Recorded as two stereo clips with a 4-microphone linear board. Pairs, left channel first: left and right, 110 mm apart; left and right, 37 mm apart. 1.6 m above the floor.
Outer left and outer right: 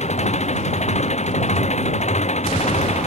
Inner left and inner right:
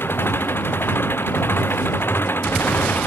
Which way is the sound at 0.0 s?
80° left.